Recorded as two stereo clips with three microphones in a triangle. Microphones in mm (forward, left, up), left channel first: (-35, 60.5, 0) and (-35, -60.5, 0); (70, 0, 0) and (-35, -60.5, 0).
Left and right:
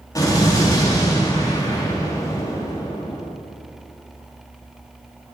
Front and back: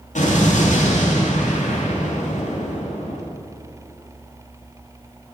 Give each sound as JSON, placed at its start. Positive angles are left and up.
{"t": 0.1, "sound": "an explosion", "azimuth_deg": 30, "distance_m": 2.5}